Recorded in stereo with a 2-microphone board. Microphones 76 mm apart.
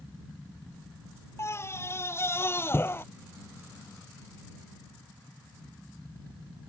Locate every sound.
1.4 s a scream: 35° left (ahead or behind); by 3.0 s 30° left (ahead or behind)